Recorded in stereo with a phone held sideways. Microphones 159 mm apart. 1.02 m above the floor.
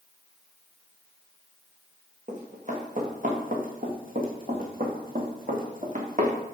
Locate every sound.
2.3 s running footsteps: 50° right (ahead or behind), 3 m; by 6.3 s 55° right (ahead or behind), 2.5 m